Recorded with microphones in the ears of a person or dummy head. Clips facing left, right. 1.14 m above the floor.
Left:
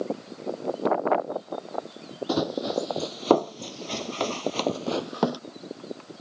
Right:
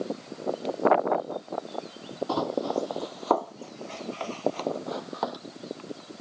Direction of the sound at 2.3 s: 25° left (ahead or behind).